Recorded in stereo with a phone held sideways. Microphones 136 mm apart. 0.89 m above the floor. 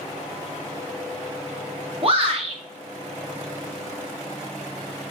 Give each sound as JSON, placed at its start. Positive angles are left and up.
{"t": 2.0, "sound": "a shout", "side_deg": -45, "distance_m": 0.7}